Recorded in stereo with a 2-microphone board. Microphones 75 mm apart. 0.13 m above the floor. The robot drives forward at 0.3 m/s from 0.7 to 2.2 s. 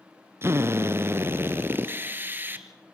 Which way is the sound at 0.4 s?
35° right (ahead or behind).